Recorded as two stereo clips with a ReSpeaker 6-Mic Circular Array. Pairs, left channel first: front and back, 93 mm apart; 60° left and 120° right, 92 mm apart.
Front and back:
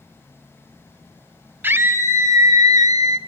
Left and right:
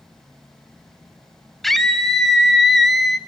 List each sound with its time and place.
1.6 s a scream: 145° left, 1.5 m; by 3.2 s 150° left, 2.5 m